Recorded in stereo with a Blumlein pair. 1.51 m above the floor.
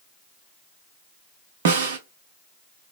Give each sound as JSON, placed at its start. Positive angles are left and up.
{"t": 1.6, "sound": "a snare drum", "azimuth_deg": -55, "distance_m": 0.7}